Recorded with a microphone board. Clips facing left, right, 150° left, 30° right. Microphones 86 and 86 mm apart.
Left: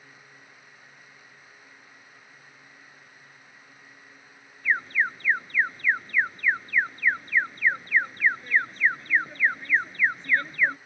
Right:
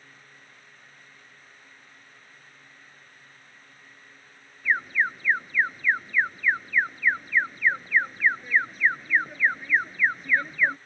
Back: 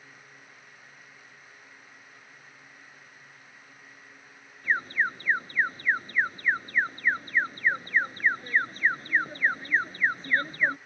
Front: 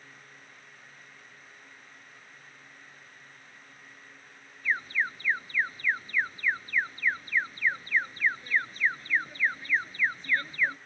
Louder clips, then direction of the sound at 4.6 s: Right 1 dB, back 3 dB; 170° right.